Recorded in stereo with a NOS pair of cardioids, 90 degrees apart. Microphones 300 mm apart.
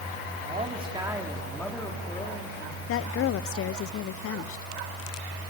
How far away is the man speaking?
About 3.5 m.